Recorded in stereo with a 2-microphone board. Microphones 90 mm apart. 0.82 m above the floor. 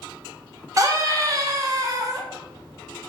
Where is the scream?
40° right (ahead or behind), 0.6 m.